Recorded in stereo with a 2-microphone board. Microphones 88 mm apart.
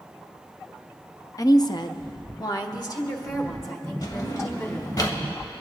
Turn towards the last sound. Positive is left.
turn(degrees=45)  # may be behind; listen again after turning